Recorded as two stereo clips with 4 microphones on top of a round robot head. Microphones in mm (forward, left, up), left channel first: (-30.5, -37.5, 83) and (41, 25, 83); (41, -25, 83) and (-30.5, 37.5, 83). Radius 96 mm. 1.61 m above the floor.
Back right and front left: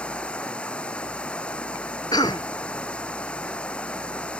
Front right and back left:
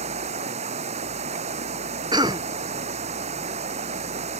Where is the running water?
140° left.